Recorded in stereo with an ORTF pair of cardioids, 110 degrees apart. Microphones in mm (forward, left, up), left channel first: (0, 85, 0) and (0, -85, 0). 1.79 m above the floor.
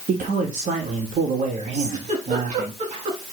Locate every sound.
0.1 s a man speaking: 50° right, 3 m
1.7 s a giggle: 40° right, 5.5 m